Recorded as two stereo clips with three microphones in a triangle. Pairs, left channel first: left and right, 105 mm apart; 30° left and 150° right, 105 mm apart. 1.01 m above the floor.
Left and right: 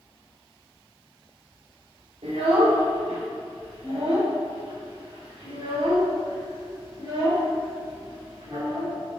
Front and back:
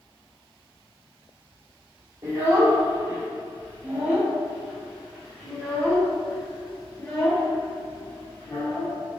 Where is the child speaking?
95° right, 2.5 m; by 9.2 s 30° right, 4.5 m.